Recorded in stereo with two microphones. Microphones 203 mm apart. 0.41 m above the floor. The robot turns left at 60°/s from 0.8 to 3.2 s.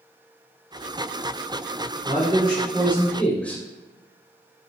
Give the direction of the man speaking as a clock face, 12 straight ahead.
4 o'clock.